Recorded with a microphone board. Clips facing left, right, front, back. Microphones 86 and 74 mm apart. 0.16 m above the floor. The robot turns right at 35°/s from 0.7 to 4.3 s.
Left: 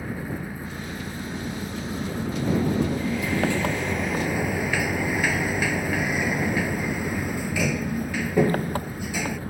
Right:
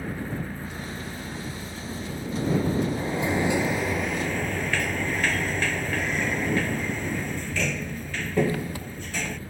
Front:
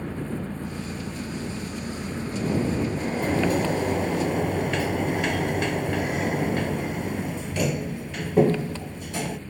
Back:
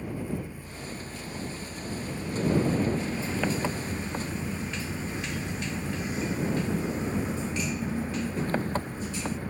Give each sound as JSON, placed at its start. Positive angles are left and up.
{"t": 0.0, "sound": "an engine running", "azimuth_deg": 5}
{"t": 3.0, "sound": "a sliding door", "azimuth_deg": -35}